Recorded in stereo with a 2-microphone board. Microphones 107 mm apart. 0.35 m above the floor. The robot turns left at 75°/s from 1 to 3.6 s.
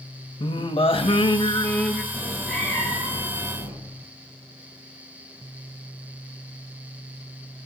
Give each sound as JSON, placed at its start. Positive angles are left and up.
{"t": 0.4, "sound": "singing", "azimuth_deg": 75, "distance_m": 0.6}
{"t": 2.1, "sound": "a cat meowing", "azimuth_deg": -155, "distance_m": 4.5}